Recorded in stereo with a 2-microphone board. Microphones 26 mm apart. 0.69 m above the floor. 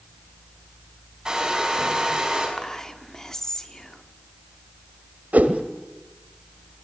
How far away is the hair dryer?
About 5.5 m.